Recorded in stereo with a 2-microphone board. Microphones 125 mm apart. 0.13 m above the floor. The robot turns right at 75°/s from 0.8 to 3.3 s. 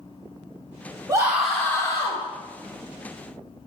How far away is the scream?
About 3.5 m.